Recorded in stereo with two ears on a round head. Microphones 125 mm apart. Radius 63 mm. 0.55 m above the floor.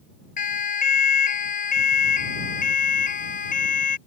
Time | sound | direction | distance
0.4 | a siren | 55° left (ahead or behind) | ?